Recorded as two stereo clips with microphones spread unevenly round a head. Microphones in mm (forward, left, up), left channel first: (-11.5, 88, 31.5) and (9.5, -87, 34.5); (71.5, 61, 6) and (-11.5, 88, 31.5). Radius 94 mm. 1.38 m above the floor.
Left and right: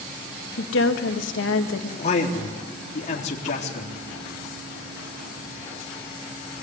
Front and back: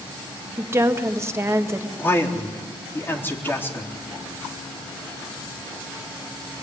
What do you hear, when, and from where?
0.6 s a woman speaking: 100° left, 2 m
2.0 s a man speaking: 45° left, 4 m